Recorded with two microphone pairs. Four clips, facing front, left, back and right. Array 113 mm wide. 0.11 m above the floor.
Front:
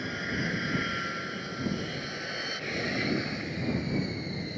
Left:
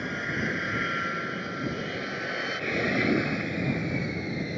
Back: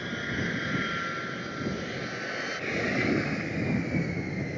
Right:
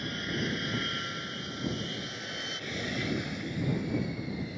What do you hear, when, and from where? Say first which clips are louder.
0.0 s an aircraft: left 3 dB, back 1 dB; 95° left; by 4.6 s 115° left